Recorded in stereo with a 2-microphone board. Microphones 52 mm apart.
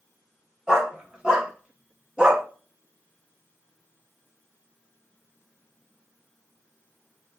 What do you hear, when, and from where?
0.7 s a dog barking: 5° right (ahead or behind), 1.8 m; by 2.4 s 15° right (ahead or behind), 1.0 m